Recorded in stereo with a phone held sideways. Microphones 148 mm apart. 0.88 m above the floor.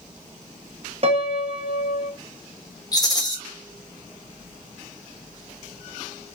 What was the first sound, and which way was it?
A piano, 45° right (ahead or behind).